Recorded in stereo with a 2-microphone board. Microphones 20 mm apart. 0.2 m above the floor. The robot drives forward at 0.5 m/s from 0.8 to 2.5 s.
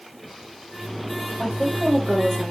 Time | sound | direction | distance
1.4 | a woman speaking | 30° left (ahead or behind) | 7 m